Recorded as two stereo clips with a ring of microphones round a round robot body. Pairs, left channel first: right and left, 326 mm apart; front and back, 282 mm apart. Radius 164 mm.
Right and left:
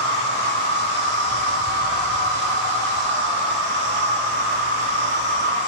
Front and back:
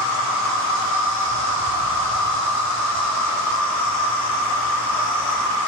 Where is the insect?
30° left, 4.5 m.